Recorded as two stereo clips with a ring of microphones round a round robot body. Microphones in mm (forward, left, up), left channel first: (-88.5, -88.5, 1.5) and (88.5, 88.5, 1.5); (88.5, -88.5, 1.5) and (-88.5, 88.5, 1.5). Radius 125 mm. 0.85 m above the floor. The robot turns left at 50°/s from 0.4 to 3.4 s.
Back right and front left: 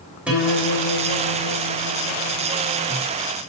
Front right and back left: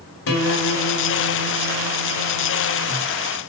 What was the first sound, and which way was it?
A guitar, 40° right.